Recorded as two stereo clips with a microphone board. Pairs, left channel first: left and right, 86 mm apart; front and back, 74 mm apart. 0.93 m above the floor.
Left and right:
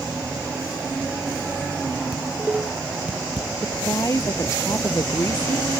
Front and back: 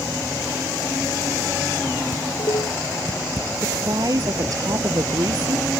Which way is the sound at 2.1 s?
15° right.